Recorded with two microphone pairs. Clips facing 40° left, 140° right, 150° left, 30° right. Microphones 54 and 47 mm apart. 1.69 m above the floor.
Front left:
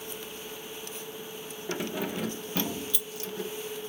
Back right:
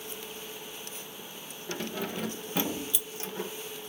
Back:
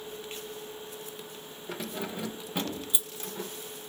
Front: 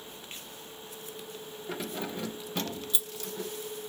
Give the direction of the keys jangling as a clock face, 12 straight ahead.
11 o'clock.